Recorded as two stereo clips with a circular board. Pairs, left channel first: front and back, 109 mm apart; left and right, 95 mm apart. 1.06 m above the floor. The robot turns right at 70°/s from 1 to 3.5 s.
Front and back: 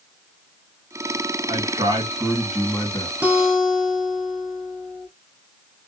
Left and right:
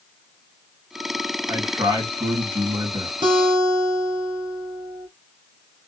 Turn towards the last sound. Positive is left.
turn(degrees=-90)